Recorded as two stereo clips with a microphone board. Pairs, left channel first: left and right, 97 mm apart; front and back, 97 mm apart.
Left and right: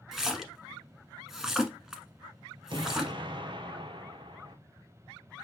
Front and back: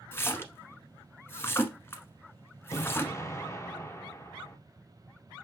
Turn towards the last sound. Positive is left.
turn(degrees=-60)